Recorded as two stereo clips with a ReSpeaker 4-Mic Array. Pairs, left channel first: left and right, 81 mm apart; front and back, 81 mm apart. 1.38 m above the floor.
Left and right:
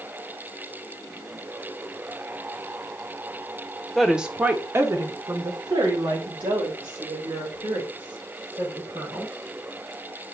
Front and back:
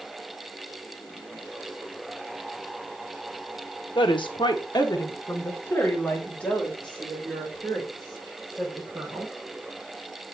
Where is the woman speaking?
Straight ahead, 1.3 m; by 9.3 s 90° right, 5 m.